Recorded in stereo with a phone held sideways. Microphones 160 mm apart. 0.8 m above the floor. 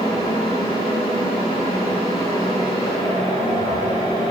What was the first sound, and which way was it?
A fan, 30° left (ahead or behind).